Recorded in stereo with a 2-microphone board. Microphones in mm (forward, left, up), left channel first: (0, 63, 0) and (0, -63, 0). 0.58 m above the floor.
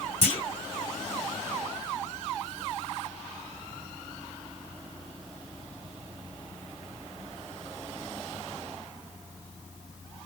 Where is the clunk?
45° left (ahead or behind), 1.1 m.